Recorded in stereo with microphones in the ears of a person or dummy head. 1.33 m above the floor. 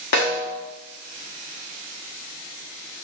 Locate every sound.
0.1 s a snare drum: 50° left (ahead or behind), 1.3 m